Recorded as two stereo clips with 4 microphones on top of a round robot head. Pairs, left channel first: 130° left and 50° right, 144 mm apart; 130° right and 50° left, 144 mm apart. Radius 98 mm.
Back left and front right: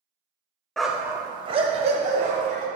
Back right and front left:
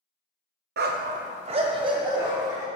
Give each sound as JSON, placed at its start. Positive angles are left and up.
{"t": 0.8, "sound": "a dog barking", "azimuth_deg": 40, "distance_m": 0.6}